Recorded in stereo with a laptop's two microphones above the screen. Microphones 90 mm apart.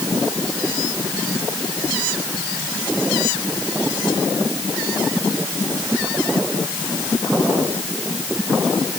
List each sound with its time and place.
Only background noise.